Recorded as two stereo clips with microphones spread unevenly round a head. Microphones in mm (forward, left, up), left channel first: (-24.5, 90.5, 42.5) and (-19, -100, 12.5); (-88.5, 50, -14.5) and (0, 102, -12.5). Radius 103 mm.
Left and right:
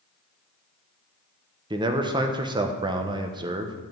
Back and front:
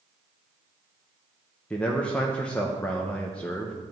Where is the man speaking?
80° right, 0.8 m.